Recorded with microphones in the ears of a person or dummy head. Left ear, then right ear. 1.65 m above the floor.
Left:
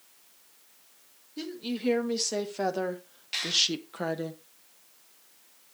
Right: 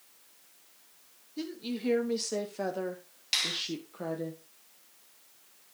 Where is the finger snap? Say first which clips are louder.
Left 2 dB; 45° right (ahead or behind), 8 m.